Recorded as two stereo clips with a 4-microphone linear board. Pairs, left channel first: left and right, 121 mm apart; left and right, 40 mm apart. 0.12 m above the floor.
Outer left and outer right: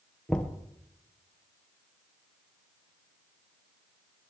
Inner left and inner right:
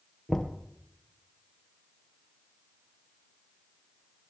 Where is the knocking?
5° left (ahead or behind), 1.7 m.